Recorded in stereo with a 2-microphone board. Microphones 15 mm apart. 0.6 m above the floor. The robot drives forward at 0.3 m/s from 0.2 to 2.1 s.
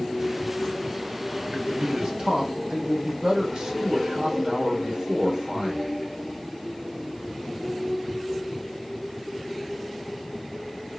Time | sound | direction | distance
1.5 | a man speaking | 55° right (ahead or behind) | 1.6 m